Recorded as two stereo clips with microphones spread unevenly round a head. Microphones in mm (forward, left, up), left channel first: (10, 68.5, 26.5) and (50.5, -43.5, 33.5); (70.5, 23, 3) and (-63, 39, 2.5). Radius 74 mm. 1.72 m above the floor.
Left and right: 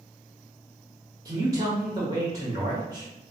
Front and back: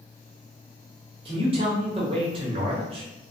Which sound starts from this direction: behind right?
A man speaking, at 1.2 s.